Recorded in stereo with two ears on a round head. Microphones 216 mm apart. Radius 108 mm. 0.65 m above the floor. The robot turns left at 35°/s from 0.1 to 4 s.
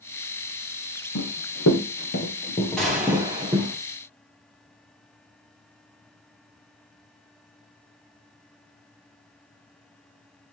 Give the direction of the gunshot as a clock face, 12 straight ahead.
12 o'clock.